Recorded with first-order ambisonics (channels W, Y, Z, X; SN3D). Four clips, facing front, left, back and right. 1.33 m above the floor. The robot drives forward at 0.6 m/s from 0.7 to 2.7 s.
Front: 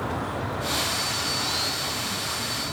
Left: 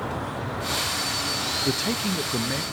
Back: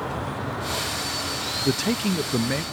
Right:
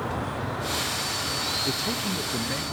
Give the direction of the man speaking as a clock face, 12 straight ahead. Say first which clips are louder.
Left 2 dB, back 4 dB; 7 o'clock.